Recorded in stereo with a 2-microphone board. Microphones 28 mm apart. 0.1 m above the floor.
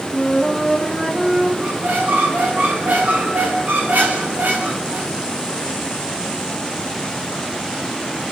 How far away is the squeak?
About 4 m.